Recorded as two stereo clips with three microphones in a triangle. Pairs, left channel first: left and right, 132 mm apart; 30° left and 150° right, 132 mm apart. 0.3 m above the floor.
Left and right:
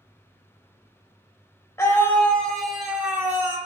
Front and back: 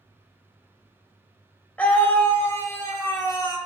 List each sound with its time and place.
1.8 s a scream: 85° left, 1.1 m; by 3.6 s 25° right, 1.3 m